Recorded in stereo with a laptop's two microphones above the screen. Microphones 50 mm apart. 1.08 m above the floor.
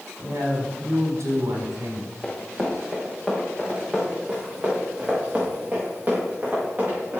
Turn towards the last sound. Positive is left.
turn(degrees=-35)  # may be behind; listen again after turning